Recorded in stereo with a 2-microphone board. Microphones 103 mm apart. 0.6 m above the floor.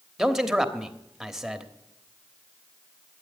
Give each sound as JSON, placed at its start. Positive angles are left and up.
{"t": 0.2, "sound": "a man speaking", "side_deg": -5, "distance_m": 1.1}